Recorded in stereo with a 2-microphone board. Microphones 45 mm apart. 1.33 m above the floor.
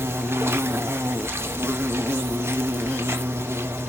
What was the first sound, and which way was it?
An insect, 65° right (ahead or behind).